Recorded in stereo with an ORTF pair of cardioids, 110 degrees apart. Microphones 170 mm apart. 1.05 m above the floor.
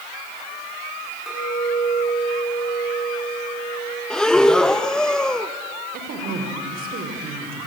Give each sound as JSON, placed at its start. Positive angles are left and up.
{"t": 1.3, "sound": "a clink", "azimuth_deg": 0, "distance_m": 8.0}
{"t": 4.1, "sound": "breathing", "azimuth_deg": 5, "distance_m": 0.8}
{"t": 5.9, "sound": "a woman speaking", "azimuth_deg": -60, "distance_m": 3.5}